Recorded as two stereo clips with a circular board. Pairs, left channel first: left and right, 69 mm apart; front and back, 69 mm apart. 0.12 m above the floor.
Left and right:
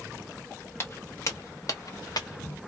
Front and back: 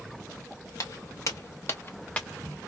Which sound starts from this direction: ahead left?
Footsteps, at 0.8 s.